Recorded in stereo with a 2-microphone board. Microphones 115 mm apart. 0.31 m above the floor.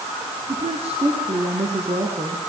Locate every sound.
0.5 s a woman speaking: 65° right (ahead or behind), 5 m; by 2.5 s 75° right (ahead or behind), 5.5 m